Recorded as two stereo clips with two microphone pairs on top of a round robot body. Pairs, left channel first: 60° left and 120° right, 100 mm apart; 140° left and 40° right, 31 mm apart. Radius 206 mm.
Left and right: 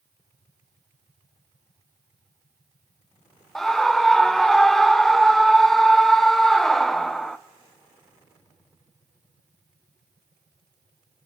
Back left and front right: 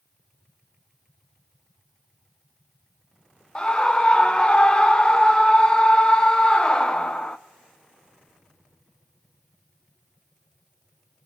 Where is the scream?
155° left, 0.9 m.